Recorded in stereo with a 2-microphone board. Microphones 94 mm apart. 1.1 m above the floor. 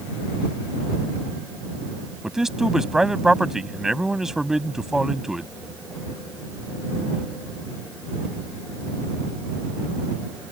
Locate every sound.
2.2 s a man speaking: 5° right (ahead or behind)